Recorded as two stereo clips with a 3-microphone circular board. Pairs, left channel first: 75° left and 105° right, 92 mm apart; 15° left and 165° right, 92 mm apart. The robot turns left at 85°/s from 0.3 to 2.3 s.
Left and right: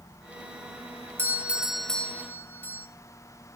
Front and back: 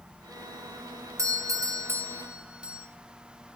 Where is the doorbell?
145° right, 1.6 m; by 2.9 s 120° left, 1.6 m.